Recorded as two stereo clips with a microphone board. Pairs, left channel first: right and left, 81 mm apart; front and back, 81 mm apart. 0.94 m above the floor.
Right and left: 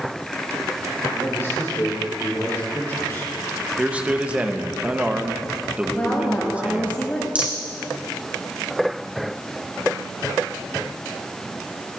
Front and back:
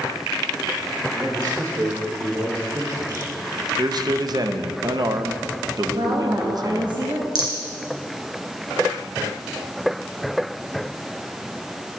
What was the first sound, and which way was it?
A man speaking, 145° right.